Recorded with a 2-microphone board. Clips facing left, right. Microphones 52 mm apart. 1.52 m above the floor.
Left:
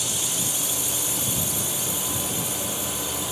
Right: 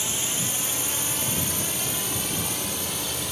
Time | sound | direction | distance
0.0 | a drone | 30° right (ahead or behind) | ?